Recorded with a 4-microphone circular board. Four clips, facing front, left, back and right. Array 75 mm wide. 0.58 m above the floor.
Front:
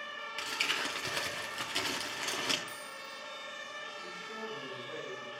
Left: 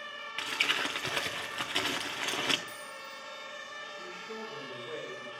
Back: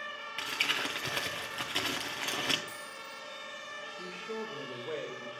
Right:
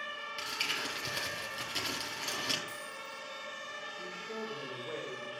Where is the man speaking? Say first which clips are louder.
Right 2 dB, back 3 dB; 175° right, 1.9 m.